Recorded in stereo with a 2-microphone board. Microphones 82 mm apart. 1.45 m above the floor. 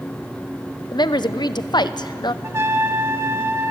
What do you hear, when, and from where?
0.9 s a woman speaking: 65° left (ahead or behind), 0.9 m
2.4 s a trumpet: 30° right (ahead or behind), 1.0 m